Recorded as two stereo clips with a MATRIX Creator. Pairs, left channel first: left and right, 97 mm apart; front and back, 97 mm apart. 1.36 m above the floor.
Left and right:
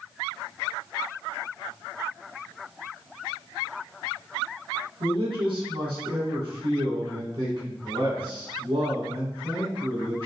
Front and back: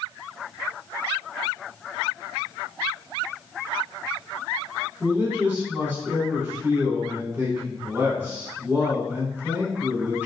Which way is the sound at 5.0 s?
110° right.